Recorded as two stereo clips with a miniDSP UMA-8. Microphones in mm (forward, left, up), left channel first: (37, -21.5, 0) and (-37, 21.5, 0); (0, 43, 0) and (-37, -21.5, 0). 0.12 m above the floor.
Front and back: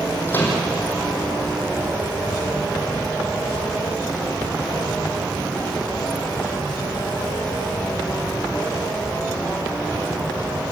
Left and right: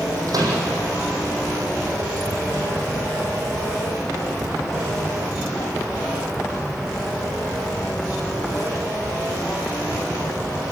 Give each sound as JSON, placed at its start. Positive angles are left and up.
{"t": 0.3, "sound": "a microwave", "azimuth_deg": -95, "distance_m": 5.5}